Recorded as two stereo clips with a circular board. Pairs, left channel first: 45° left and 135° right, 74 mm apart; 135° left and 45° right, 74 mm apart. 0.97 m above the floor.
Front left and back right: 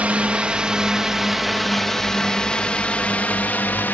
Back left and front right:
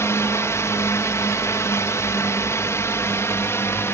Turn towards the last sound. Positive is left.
turn(degrees=100)